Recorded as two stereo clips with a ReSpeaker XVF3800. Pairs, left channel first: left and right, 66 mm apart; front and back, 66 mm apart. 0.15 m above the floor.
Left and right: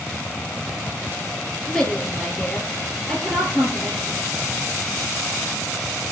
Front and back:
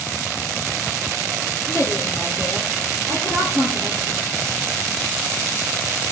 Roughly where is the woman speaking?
Ahead.